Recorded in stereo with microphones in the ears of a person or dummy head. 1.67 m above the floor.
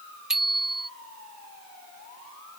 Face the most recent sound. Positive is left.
turn(degrees=0)  # may be behind; listen again after turning